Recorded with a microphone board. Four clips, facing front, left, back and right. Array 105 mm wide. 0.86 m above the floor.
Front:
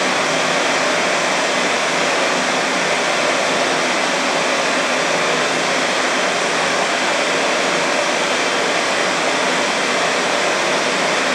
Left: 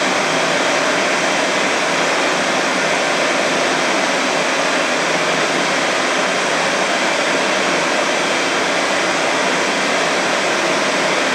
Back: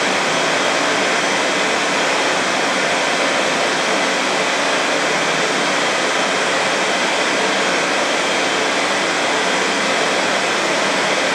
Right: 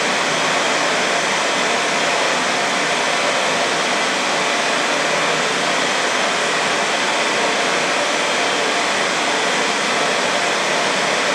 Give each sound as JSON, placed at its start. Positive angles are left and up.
{"t": 0.0, "sound": "running water", "azimuth_deg": 95, "distance_m": 0.9}